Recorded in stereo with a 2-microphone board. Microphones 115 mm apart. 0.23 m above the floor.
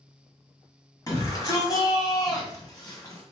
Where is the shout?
30° left (ahead or behind), 1.5 m.